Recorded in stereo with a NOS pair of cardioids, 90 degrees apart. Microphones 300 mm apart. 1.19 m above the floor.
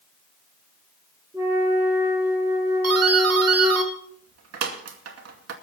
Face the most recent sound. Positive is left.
turn(degrees=-60)